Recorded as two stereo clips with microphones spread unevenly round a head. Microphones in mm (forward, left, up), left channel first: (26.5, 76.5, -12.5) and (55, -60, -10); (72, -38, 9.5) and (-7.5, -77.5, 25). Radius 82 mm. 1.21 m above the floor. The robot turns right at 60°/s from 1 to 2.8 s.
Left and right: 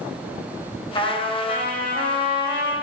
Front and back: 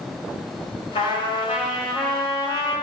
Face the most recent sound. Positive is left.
turn(degrees=150)